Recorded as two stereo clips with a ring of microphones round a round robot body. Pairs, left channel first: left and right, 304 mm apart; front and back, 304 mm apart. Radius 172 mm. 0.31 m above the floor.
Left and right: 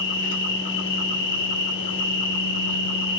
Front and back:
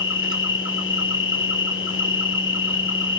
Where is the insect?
50° left, 1.5 m.